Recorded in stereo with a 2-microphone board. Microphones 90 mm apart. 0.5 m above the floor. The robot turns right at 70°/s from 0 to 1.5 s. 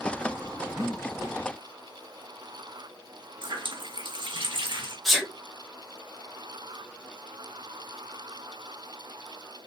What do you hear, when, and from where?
0.8 s breathing: 30° left (ahead or behind), 0.5 m; by 1.0 s 45° left (ahead or behind), 0.5 m
3.4 s a running tap: 60° right (ahead or behind), 0.8 m
5.0 s a sneeze: centre (ahead or behind), 0.9 m